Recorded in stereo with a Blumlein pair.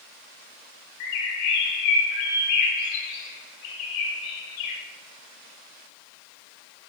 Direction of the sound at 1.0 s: 45° left.